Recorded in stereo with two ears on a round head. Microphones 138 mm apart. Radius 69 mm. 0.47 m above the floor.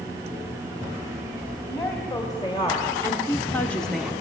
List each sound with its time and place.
1.7 s a woman speaking: 25° left (ahead or behind), 2.5 m; by 4.1 s 5° right (ahead or behind), 0.9 m